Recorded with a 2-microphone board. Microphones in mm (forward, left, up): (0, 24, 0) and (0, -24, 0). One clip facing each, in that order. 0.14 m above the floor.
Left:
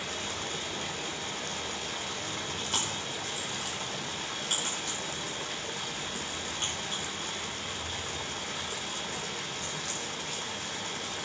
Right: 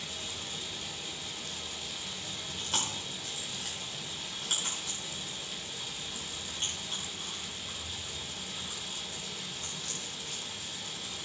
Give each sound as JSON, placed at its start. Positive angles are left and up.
{"t": 0.0, "sound": "running water", "side_deg": 60, "distance_m": 0.9}
{"t": 2.6, "sound": "chewing", "side_deg": 0, "distance_m": 4.5}